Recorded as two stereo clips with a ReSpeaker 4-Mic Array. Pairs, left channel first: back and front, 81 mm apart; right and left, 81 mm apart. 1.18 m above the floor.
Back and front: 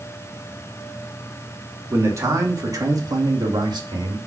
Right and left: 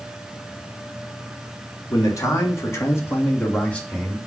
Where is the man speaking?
55° right, 2.5 m; by 4.2 s 10° right, 2.5 m.